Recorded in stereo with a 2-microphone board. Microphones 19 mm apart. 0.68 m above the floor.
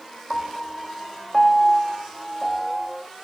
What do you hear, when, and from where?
0.3 s a piano: 20° left (ahead or behind), 0.7 m